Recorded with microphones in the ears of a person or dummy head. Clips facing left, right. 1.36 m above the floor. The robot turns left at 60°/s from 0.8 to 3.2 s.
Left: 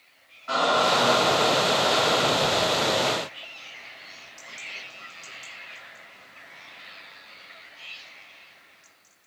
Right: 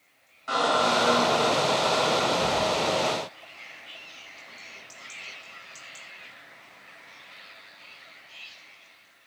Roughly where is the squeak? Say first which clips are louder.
Left 1 dB; behind right.